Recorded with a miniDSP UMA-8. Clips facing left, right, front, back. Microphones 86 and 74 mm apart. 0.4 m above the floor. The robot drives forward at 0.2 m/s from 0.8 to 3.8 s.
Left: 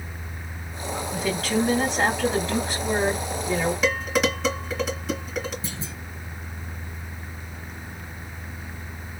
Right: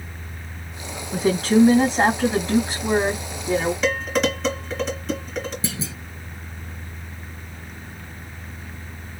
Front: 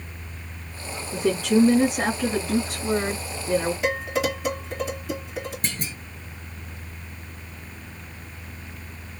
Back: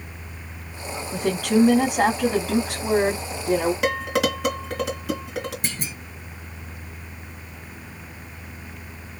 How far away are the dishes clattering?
About 2.5 m.